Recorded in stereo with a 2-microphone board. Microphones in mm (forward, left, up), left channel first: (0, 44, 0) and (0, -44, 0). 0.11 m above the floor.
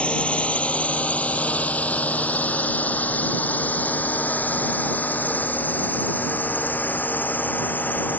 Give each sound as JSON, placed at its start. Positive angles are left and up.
{"t": 0.0, "sound": "a drone", "side_deg": 15}